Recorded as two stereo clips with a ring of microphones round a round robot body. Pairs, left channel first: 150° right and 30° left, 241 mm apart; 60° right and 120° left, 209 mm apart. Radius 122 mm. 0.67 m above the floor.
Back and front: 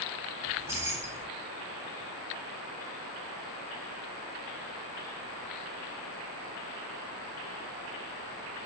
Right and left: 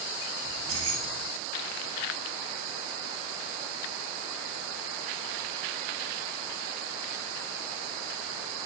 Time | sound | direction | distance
0.5 | keys jangling | 110° left | 1.0 m